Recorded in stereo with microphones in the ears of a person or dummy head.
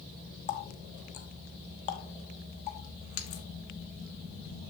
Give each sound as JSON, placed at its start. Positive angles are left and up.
{"t": 0.5, "sound": "a running tap", "side_deg": 40, "distance_m": 1.3}